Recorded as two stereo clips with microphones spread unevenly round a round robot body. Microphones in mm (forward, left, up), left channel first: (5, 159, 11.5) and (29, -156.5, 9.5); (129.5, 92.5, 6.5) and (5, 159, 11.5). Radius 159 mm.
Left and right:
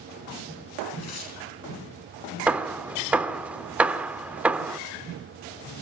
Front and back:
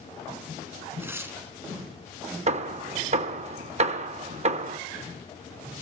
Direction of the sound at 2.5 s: 170° right.